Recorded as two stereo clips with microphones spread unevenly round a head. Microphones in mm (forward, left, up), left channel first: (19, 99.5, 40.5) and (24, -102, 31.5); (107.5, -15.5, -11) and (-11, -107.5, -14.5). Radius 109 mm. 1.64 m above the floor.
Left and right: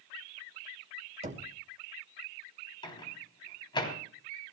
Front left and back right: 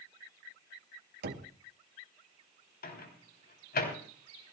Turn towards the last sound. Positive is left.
turn(degrees=25)